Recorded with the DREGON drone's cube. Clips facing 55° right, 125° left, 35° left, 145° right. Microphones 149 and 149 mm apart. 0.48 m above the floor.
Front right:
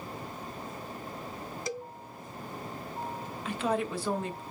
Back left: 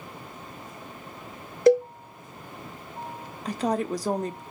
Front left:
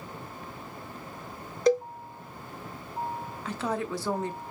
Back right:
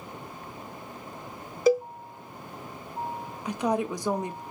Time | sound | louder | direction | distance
1.7 | a cowbell | back left 22 dB, back right 1 dB | 130° left | 0.5 m
3.5 | a woman speaking | back left 4 dB, back right 4 dB | 150° left | 0.8 m